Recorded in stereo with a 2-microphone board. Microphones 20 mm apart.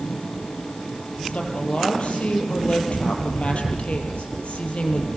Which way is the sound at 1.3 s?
70° left (ahead or behind).